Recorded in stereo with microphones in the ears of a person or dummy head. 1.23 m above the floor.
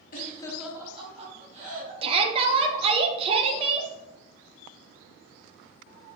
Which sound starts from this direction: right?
A shout, at 2.0 s.